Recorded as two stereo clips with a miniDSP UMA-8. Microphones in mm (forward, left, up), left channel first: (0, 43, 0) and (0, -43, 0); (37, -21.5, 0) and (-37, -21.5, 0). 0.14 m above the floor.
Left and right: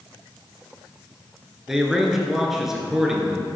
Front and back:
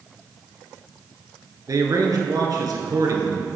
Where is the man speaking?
175° right, 1.7 m.